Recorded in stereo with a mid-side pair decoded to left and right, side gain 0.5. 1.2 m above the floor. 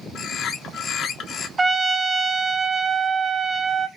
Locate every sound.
0.1 s a bird: 60° left, 1.1 m
1.6 s a trumpet: 30° right, 0.7 m